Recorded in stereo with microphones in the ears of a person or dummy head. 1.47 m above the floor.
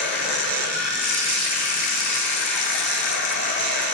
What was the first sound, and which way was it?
Running water, 60° left (ahead or behind).